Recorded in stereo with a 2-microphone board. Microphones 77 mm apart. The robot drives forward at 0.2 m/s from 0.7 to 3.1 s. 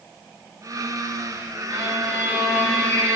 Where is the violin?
35° right (ahead or behind), 3.5 m; by 3.2 s 30° right (ahead or behind), 3.5 m.